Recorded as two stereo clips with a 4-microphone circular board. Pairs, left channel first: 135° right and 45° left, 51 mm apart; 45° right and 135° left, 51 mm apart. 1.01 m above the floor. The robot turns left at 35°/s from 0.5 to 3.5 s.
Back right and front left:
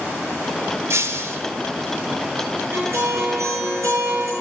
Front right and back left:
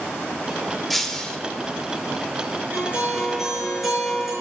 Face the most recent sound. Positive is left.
turn(degrees=50)